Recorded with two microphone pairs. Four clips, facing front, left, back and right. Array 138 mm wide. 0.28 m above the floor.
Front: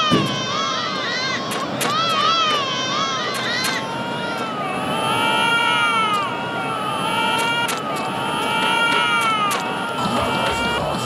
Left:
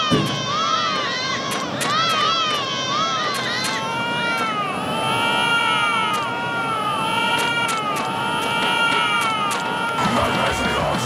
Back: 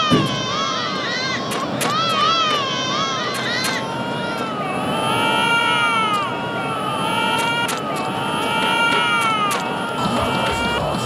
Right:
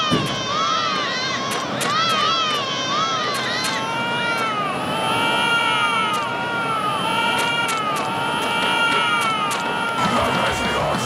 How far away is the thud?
About 4 m.